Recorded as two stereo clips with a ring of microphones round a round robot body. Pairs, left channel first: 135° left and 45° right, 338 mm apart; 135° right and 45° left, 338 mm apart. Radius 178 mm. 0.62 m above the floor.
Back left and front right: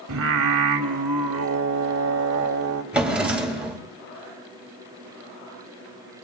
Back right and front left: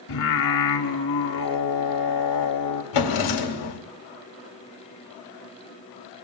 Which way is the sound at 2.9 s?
130° right.